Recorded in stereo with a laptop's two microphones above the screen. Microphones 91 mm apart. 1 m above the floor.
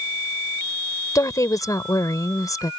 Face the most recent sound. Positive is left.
turn(degrees=40)  # may be behind; listen again after turning